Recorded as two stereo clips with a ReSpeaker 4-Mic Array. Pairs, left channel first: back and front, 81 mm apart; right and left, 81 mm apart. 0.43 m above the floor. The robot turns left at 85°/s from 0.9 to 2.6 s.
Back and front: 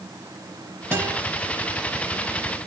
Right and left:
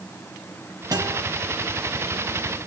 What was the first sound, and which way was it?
A guitar, 60° left.